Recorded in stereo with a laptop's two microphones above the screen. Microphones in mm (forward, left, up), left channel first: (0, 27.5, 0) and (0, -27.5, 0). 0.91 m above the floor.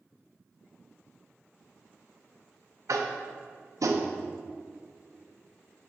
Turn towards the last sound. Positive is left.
turn(degrees=-80)